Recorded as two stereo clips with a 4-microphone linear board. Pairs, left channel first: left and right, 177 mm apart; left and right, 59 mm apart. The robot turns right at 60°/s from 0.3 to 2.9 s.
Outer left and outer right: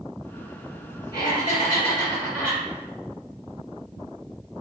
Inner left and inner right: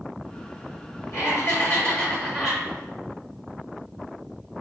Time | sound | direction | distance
1.1 | laughter | 110° left | 1.9 m